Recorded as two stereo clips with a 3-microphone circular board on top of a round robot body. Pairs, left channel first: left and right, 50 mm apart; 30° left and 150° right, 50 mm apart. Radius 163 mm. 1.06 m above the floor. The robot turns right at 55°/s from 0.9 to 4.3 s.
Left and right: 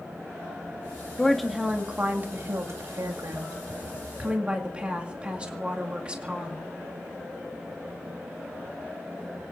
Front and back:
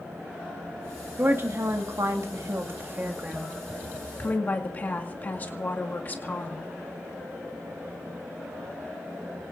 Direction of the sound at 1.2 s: 165° left.